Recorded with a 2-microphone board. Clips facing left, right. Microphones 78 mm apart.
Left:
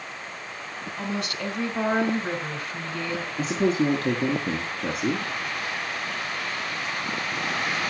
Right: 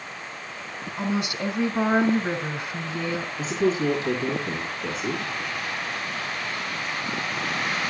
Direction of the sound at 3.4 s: 60° left (ahead or behind).